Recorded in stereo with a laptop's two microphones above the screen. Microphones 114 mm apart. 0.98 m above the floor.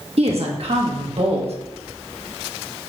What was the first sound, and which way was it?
A woman speaking, 60° right (ahead or behind).